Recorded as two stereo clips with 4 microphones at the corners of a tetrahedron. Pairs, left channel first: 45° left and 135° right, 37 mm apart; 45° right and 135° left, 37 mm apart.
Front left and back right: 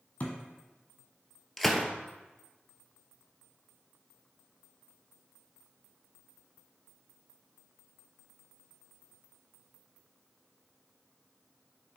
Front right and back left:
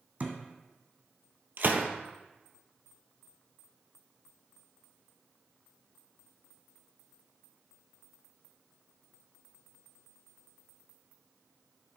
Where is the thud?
95° left, 1.7 m.